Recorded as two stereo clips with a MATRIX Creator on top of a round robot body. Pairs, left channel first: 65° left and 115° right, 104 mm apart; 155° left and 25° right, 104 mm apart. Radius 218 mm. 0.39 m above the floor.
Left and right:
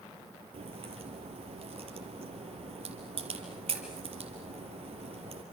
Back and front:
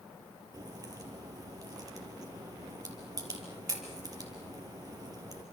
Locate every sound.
0.5 s a crack: 80° right, 4 m